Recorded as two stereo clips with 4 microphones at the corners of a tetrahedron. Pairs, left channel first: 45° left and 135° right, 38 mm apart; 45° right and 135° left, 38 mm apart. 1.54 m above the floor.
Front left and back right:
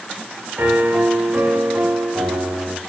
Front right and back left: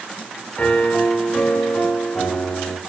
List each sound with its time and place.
0.6 s a piano: 105° right, 4 m